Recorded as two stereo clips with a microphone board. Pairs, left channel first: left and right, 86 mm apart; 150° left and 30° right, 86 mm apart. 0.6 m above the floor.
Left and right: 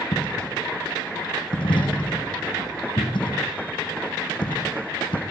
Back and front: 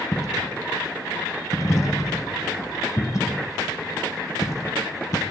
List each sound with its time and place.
0.1 s a dropped coin: 100° left, 2.5 m